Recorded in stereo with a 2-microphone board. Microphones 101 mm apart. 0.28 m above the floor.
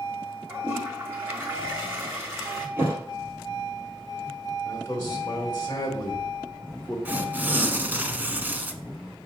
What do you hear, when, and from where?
0.5 s a toilet flushing: 20° right (ahead or behind), 1.7 m
2.8 s a thud: 25° right (ahead or behind), 3.5 m
4.7 s a man speaking: 25° left (ahead or behind), 1.7 m
7.0 s tearing paper: 20° right (ahead or behind), 0.7 m